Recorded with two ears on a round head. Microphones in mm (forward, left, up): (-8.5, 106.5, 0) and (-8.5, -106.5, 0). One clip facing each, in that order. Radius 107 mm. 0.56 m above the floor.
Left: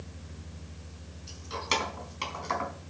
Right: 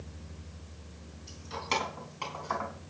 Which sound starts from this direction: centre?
Keys jangling, at 1.3 s.